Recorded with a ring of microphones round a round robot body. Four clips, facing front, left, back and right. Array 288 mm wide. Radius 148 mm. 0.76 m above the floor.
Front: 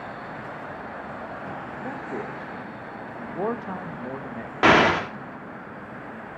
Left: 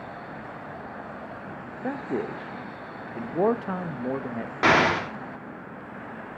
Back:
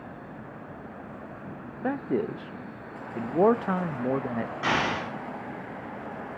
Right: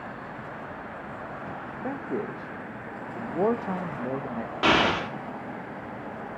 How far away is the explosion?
About 1.5 m.